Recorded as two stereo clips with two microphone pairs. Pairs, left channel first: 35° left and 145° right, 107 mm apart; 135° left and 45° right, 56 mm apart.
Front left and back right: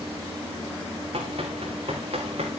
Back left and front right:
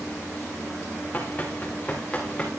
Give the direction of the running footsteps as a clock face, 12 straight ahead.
5 o'clock.